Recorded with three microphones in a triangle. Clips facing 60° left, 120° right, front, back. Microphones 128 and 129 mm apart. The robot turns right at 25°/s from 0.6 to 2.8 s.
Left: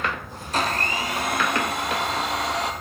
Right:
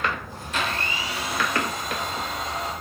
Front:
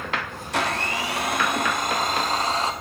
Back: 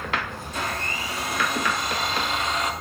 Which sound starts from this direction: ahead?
A blender, at 0.5 s.